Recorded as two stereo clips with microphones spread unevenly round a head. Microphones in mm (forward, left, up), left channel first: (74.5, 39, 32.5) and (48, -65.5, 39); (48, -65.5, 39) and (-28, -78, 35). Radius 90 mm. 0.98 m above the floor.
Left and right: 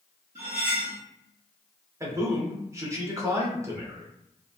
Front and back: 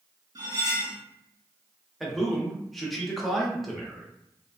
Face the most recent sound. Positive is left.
turn(degrees=-85)